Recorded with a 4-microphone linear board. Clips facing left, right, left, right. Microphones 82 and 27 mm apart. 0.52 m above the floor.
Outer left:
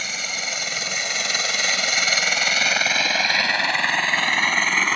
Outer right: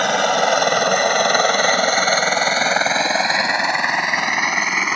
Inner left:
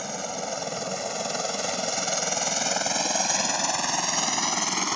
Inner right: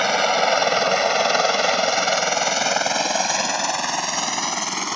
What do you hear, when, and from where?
0.0 s a helicopter: 65° right (ahead or behind); by 5.0 s 10° right (ahead or behind)